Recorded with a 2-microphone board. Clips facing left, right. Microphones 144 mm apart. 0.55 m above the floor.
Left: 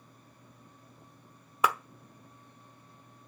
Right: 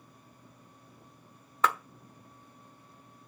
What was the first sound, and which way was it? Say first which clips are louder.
A clap: even; 10° left (ahead or behind).